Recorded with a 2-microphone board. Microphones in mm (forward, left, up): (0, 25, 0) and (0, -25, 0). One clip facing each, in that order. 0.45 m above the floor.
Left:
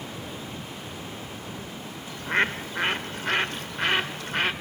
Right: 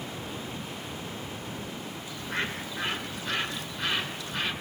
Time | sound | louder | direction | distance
2.1 | a bird | left 8 dB | 55° left (ahead or behind) | 1.1 m